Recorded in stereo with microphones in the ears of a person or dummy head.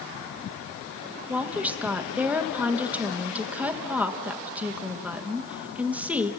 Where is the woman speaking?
10° right (ahead or behind), 1.5 m.